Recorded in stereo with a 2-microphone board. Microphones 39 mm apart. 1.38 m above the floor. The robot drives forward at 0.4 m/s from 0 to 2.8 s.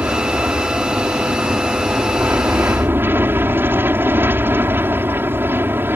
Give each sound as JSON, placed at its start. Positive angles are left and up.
{"t": 0.0, "sound": "an aircraft", "side_deg": -70}